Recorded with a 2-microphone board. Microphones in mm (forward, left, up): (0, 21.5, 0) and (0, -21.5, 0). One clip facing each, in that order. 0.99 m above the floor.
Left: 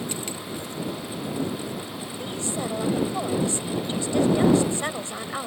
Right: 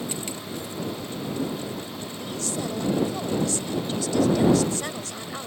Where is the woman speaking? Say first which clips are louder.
Left 1 dB; 25° left (ahead or behind).